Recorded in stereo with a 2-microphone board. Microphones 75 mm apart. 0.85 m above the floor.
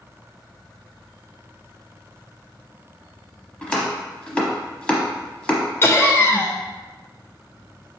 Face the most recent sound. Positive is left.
turn(degrees=30)  # may be behind; listen again after turning